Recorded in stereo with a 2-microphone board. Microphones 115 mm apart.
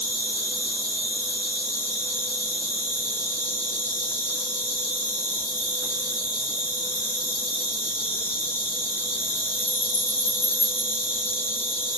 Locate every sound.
0.0 s an insect: 20° left (ahead or behind), 0.7 m